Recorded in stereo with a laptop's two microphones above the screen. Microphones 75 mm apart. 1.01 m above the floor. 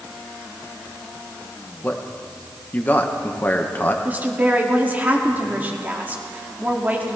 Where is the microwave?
No microwave in this recording.